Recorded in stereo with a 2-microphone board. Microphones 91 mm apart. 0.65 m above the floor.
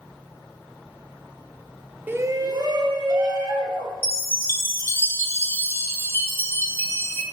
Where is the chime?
25° left (ahead or behind), 1.0 m.